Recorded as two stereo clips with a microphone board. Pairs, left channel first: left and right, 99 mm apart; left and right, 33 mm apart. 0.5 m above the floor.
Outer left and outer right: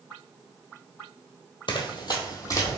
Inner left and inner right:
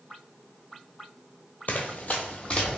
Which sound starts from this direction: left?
Running footsteps, at 1.7 s.